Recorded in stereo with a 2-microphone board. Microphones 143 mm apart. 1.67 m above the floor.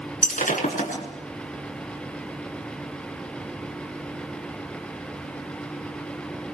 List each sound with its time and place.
0.2 s breaking glass: 75° left (ahead or behind), 8 m